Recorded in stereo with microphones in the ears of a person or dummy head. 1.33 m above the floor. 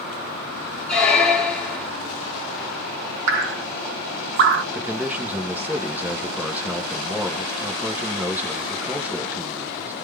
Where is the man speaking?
10° right (ahead or behind), 0.8 m.